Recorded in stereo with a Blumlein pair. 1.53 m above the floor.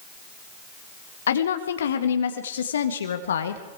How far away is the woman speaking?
About 1.7 m.